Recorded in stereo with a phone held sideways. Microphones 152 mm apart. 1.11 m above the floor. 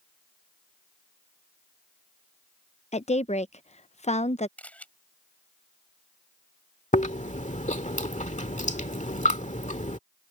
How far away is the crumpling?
No crumpling in this recording.